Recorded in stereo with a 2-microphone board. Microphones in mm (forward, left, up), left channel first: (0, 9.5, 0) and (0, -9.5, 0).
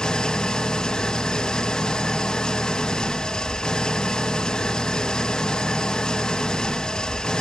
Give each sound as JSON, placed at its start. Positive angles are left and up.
{"t": 0.0, "sound": "an engine running", "side_deg": 50, "distance_m": 0.9}